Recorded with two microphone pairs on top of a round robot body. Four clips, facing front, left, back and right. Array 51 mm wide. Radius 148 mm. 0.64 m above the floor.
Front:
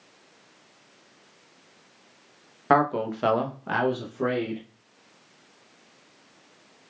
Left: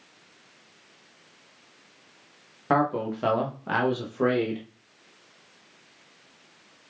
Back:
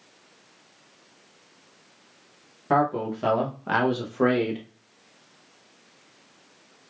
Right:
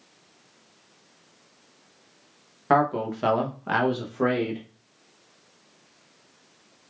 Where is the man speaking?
15° right, 0.9 m; by 4.6 s 175° right, 1.0 m.